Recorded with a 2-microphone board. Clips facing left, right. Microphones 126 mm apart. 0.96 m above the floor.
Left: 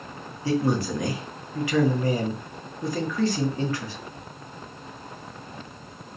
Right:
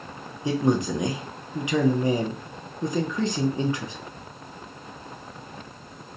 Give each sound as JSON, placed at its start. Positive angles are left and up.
{"t": 0.5, "sound": "a man speaking", "side_deg": -20, "distance_m": 0.5}